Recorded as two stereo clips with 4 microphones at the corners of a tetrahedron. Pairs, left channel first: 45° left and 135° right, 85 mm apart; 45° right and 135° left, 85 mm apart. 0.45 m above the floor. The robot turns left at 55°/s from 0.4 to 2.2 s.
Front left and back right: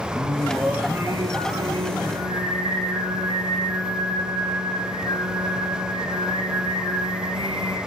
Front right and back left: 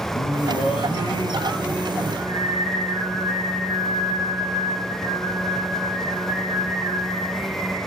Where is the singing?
45° right, 6.5 m; by 7.8 s 145° right, 6.5 m.